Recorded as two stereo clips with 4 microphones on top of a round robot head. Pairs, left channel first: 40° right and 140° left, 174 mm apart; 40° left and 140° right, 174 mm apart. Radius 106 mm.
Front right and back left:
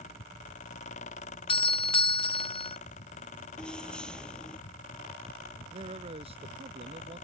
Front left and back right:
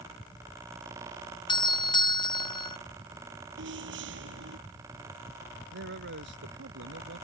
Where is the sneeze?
I don't hear a sneeze.